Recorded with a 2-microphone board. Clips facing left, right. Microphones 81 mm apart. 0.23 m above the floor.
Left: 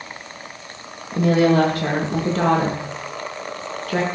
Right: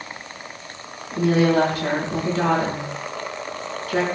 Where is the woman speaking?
50° left (ahead or behind), 8 m.